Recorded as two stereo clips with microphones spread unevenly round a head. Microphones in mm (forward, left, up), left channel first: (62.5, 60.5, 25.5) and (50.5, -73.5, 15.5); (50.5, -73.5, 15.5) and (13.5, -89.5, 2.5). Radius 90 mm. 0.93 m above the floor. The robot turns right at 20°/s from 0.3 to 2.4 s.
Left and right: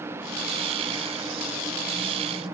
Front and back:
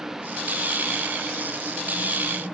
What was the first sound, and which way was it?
Only background noise.